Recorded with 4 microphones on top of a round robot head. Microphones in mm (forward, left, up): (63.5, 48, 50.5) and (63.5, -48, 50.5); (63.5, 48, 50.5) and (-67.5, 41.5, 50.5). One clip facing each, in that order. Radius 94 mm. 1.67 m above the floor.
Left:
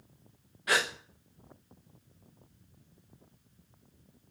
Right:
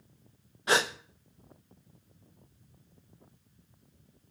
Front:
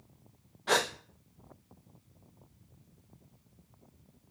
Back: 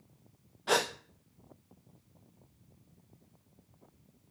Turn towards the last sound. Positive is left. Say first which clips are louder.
# right 3 dB, even
turn(degrees=-100)